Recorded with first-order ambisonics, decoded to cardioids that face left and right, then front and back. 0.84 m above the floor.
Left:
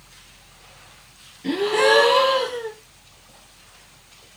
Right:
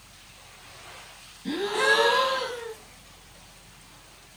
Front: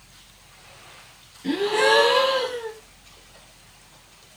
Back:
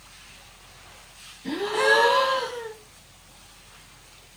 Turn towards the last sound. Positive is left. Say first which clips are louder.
# left 5 dB, front 2 dB
turn(degrees=60)